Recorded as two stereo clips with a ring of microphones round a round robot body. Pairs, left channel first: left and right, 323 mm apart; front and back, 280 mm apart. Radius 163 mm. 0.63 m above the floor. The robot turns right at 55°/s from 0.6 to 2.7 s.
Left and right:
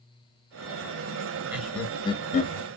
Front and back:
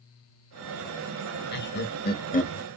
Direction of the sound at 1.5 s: 10° right.